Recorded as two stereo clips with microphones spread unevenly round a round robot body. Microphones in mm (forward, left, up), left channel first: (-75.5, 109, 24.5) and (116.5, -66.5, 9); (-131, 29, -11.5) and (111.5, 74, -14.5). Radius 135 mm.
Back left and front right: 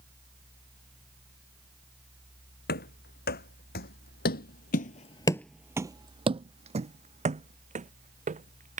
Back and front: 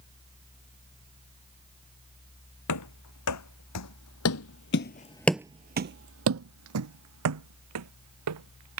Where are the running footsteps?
165° right; by 8.8 s 20° left.